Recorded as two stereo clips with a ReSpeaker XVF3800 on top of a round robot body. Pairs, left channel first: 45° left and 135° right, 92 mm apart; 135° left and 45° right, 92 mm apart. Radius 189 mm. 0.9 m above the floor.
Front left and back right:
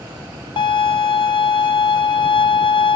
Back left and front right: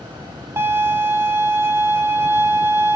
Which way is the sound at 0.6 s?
20° left.